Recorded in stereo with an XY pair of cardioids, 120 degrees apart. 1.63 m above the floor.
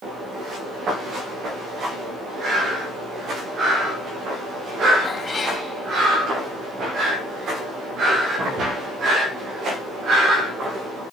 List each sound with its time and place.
5.0 s a cat meowing: 35° left, 4.5 m